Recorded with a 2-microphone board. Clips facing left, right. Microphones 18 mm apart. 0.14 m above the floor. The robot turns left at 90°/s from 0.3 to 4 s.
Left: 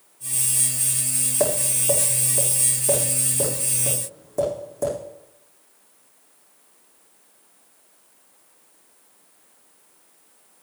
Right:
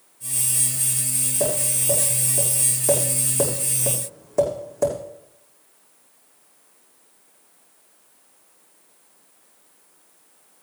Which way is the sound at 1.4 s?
75° left (ahead or behind).